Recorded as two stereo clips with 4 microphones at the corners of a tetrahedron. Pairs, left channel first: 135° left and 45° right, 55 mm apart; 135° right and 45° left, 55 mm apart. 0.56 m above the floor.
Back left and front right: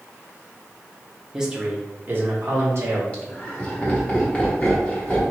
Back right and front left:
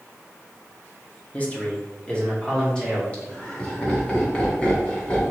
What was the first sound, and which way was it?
A man speaking, 115° right.